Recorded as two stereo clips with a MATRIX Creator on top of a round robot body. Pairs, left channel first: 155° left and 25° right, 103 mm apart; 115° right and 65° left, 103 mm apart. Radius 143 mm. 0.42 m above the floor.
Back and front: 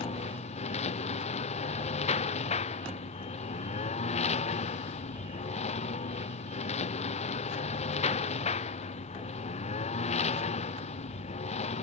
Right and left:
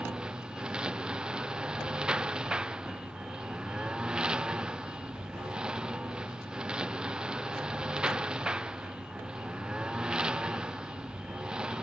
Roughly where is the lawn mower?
Behind left.